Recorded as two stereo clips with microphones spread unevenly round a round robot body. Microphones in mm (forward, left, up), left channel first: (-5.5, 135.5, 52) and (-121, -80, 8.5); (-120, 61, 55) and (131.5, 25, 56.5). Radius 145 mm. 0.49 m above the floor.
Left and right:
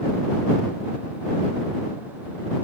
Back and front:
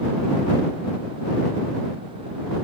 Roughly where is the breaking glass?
No breaking glass in this recording.